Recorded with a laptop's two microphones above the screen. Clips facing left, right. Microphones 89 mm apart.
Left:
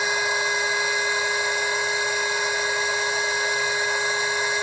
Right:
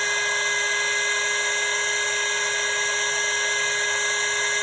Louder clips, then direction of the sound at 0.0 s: Left 2 dB; 10° left (ahead or behind).